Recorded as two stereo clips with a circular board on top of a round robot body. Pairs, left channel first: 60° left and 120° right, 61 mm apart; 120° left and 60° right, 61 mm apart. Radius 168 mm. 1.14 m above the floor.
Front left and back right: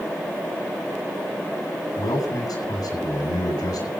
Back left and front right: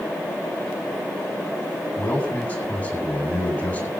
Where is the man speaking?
55° left, 8.5 m.